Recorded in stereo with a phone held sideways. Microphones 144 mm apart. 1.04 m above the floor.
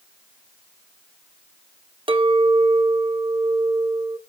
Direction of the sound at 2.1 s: 35° right (ahead or behind).